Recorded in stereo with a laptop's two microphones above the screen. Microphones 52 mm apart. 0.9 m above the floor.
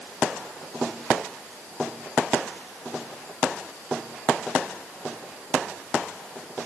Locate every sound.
Only background noise.